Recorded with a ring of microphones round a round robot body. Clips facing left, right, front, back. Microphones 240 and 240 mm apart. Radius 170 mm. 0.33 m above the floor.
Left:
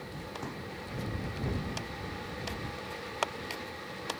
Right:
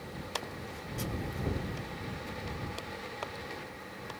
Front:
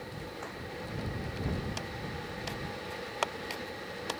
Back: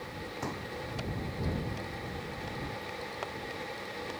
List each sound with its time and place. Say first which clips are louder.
0.4 s a pop: left 3 dB, back 5 dB; 145° left